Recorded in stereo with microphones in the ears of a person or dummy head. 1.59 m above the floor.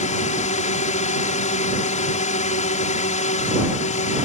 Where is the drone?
45° left (ahead or behind).